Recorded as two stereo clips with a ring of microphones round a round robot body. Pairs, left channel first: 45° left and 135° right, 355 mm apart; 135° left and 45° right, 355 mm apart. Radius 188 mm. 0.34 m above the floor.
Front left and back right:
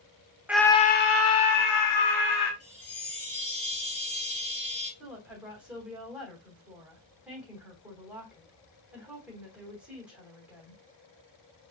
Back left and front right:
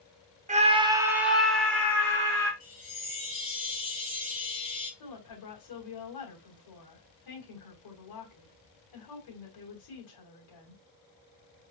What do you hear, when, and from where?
0.5 s a scream: 60° right, 0.8 m; by 2.5 s 55° left, 2.0 m
2.6 s a chime: 115° left, 3 m
5.0 s a woman speaking: 140° left, 3 m